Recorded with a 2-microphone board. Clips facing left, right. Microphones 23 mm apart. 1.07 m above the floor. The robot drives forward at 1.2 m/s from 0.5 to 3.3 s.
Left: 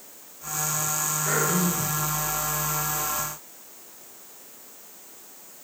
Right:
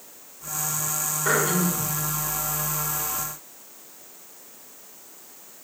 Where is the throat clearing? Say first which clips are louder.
Right 3 dB; 60° right (ahead or behind), 2.0 m; by 1.9 s 85° right, 1.7 m.